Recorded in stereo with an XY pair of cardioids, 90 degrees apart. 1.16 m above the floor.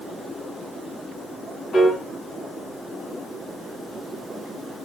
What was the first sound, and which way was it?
A piano, 60° left.